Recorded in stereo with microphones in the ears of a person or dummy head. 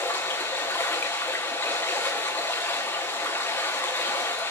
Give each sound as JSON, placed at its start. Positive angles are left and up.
{"t": 0.0, "sound": "running water", "side_deg": 10, "distance_m": 1.2}